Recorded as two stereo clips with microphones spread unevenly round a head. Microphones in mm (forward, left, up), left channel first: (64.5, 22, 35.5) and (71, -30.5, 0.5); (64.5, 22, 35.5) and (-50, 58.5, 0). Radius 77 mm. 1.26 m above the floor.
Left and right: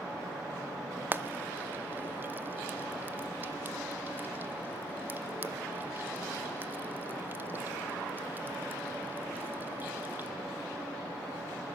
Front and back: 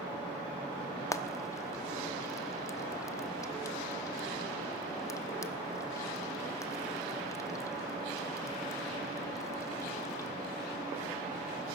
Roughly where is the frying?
Ahead.